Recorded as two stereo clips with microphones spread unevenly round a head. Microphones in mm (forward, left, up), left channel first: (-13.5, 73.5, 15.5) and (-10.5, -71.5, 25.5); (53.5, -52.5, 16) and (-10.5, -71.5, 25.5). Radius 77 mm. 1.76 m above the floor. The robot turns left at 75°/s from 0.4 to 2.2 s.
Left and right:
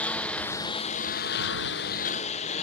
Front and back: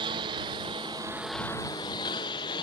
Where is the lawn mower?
175° left; by 2.6 s 45° left.